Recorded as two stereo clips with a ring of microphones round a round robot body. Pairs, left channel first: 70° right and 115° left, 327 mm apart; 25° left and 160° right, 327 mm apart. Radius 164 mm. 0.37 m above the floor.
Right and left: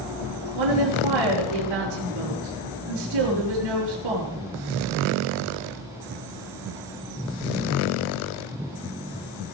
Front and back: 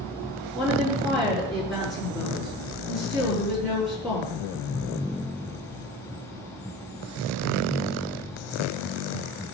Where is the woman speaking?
115° left, 6 m.